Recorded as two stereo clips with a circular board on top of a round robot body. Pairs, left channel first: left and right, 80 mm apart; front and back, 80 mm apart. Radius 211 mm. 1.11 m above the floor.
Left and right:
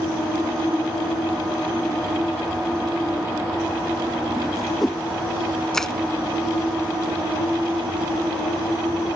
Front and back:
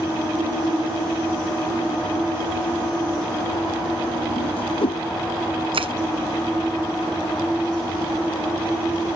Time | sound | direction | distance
4.4 | a whoosh | straight ahead | ?
5.7 | crushing | 175° left | ?